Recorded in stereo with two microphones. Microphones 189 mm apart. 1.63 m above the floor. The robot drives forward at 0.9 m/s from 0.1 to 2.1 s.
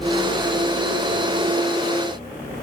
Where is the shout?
No shout in this recording.